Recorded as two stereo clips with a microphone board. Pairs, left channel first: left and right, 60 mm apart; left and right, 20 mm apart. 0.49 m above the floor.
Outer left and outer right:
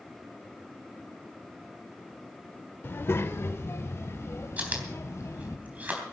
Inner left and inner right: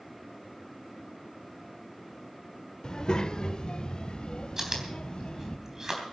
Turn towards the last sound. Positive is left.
turn(degrees=-25)  # may be behind; listen again after turning